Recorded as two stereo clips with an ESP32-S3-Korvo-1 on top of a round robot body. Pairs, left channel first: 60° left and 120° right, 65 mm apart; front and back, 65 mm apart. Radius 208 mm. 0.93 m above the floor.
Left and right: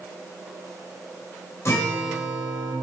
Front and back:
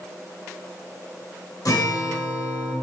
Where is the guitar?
15° left, 1.2 m.